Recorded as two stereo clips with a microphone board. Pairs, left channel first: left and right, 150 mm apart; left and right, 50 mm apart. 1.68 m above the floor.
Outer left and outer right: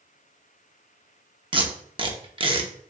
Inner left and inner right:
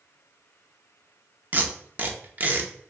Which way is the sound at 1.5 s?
35° right (ahead or behind).